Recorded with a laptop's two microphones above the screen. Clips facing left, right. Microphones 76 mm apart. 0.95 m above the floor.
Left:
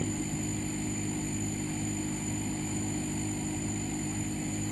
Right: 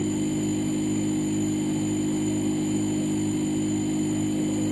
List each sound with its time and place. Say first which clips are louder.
0.0 s a machine running: right 9 dB; 65° right (ahead or behind)